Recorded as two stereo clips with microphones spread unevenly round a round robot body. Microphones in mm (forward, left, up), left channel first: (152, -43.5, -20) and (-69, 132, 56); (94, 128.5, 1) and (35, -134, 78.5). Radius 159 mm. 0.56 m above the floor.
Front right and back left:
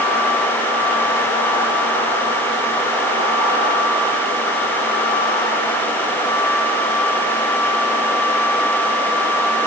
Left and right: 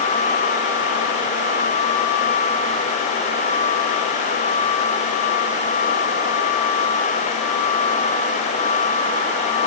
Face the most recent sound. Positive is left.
No sound to turn to.